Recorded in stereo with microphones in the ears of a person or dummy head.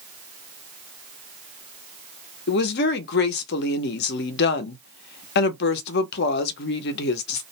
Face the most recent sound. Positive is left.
turn(degrees=60)  # may be behind; listen again after turning